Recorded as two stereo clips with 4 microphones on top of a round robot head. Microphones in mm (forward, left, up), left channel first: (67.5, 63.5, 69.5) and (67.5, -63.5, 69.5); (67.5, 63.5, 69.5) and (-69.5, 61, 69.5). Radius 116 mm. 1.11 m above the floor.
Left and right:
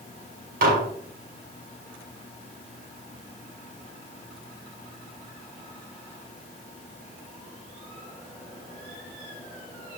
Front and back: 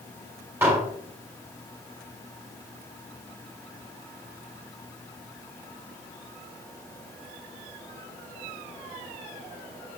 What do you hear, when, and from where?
0.6 s dishes clattering: 100° right, 3 m